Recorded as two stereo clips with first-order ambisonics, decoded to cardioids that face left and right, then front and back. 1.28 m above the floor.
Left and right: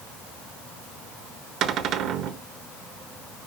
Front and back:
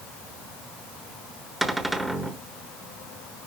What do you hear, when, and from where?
1.6 s a cupboard door: 100° right, 1.1 m